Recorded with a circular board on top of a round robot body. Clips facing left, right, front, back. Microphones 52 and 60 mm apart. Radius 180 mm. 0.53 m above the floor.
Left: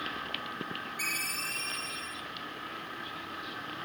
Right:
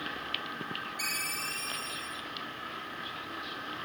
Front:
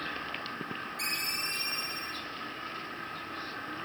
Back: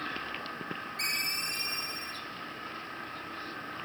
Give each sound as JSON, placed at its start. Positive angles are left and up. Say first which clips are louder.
{"t": 1.0, "sound": "a ringtone", "louder": "left 2 dB, back 2 dB", "azimuth_deg": 145, "distance_m": 3.0}